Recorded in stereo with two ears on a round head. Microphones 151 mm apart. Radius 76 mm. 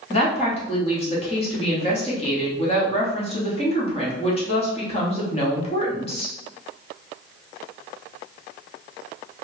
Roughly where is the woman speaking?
Left.